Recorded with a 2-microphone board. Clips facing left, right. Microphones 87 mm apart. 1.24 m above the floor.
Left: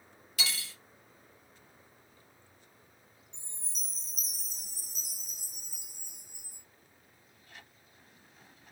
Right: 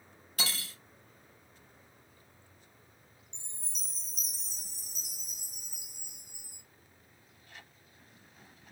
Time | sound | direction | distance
0.4 | cutlery clinking | 40° right (ahead or behind) | 0.7 m
3.3 | a chime | 40° left (ahead or behind) | 1.3 m